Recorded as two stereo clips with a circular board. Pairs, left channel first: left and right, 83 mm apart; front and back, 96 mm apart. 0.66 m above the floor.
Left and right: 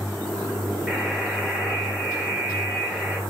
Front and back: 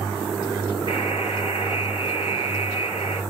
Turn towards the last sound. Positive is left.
turn(degrees=-5)